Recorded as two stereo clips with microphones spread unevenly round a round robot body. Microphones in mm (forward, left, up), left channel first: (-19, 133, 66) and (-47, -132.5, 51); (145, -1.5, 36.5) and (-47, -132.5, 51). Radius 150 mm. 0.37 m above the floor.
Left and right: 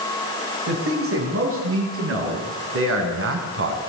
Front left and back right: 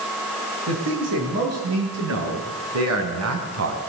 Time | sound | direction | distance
0.7 | a man speaking | 135° right | 9 m